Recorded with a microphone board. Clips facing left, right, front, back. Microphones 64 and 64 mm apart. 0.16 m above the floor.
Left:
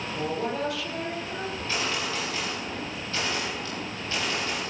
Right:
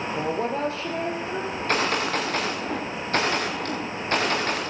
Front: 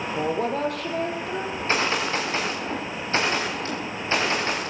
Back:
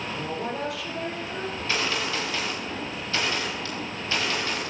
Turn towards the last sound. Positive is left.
turn(degrees=-55)